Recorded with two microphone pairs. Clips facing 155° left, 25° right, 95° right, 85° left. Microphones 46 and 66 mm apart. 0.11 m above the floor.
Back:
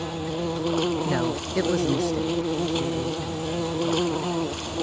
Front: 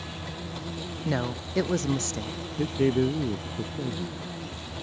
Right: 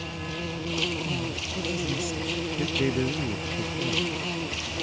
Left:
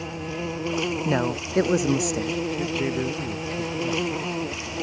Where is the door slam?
No door slam in this recording.